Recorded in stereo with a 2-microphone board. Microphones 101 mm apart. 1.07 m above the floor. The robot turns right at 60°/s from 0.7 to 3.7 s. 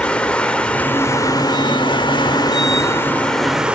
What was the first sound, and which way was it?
Running water, 15° left.